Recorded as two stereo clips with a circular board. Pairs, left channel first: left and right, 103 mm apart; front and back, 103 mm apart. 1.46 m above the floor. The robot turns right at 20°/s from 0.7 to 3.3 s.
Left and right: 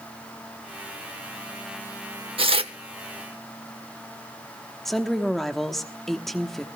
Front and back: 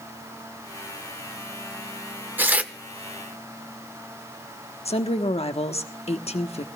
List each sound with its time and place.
2.4 s tearing paper: 110° right, 0.8 m; by 2.7 s 105° right, 0.8 m
4.8 s a woman speaking: straight ahead, 1.1 m